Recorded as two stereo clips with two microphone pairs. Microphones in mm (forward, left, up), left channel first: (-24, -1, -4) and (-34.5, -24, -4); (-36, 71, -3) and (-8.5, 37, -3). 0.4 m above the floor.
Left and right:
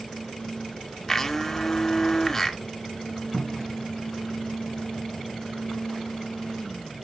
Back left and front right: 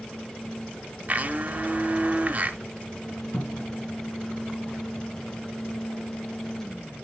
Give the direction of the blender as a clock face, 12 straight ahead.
12 o'clock.